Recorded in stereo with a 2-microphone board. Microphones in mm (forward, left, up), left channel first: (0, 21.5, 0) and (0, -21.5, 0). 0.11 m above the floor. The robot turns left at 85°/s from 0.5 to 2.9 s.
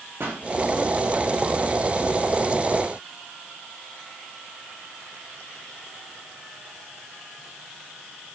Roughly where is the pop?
Right.